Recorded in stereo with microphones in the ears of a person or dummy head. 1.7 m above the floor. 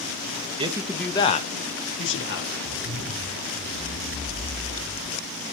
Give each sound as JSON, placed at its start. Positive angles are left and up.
{"t": 0.6, "sound": "a man speaking", "side_deg": -25, "distance_m": 0.9}
{"t": 2.6, "sound": "a zipper", "side_deg": -45, "distance_m": 4.5}